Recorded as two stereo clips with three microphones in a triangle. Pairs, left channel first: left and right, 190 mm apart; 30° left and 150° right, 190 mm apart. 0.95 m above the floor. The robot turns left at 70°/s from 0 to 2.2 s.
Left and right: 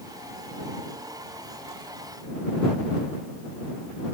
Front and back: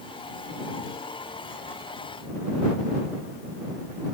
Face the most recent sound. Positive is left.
No sound to turn to.